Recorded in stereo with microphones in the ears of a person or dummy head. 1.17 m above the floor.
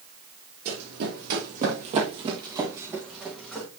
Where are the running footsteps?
60° right (ahead or behind), 3 m; by 3.7 s 5° left (ahead or behind), 3 m.